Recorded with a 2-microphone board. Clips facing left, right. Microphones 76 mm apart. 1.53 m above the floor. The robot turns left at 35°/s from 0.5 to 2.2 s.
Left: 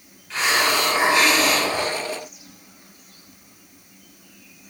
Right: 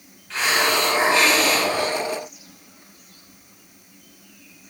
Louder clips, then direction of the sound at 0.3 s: Even; centre (ahead or behind).